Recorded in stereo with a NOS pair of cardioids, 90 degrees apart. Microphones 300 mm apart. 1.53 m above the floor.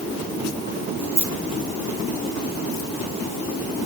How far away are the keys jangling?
About 1.8 m.